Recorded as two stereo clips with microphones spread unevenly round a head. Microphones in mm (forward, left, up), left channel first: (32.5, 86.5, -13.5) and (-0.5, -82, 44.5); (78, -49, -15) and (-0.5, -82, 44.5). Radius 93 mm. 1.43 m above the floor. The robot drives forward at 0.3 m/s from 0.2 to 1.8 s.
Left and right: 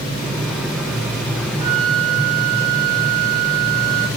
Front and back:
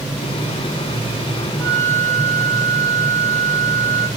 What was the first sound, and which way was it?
A flute, 30° right.